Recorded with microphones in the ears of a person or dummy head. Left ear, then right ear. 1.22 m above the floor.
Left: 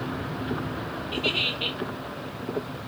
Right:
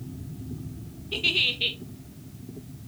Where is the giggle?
Centre (ahead or behind), 0.5 m.